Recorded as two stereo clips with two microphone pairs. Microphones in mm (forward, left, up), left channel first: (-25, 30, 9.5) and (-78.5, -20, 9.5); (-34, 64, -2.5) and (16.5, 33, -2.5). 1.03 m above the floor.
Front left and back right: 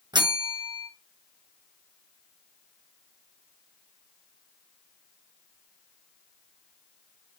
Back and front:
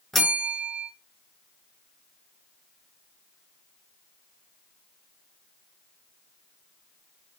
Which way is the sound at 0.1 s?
130° right.